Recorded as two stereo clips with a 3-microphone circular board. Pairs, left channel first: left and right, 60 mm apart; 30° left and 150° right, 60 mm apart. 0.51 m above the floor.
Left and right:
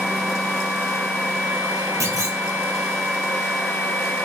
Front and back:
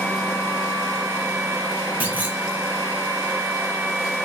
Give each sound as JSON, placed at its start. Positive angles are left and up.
{"t": 2.0, "sound": "a clunk", "azimuth_deg": -90, "distance_m": 0.8}